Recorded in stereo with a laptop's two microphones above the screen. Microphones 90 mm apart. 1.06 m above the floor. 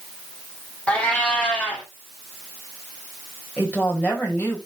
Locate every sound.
0.9 s a cat meowing: 15° left (ahead or behind), 3.5 m
3.6 s a woman speaking: 20° left (ahead or behind), 5.5 m